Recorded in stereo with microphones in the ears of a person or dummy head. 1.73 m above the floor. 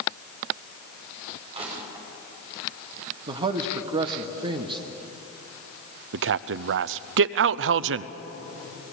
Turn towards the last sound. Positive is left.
turn(degrees=-65)  # may be behind; listen again after turning